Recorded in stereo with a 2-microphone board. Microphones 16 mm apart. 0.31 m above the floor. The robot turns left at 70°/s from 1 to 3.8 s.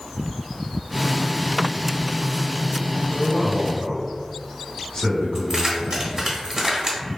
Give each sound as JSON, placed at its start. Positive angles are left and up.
{"t": 3.1, "sound": "a man speaking", "azimuth_deg": 130, "distance_m": 1.7}
{"t": 5.3, "sound": "keys jangling", "side_deg": -30, "distance_m": 1.0}